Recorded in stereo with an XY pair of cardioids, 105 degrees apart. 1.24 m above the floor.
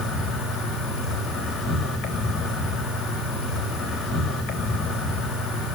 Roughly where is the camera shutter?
No camera shutter in this recording.